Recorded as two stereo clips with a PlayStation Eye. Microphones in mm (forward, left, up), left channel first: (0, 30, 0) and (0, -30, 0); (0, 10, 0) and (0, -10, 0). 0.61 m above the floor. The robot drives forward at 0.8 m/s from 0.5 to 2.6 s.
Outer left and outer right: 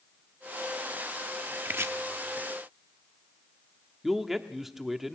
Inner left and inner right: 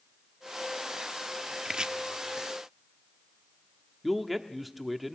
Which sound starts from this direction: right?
Chopping, at 1.6 s.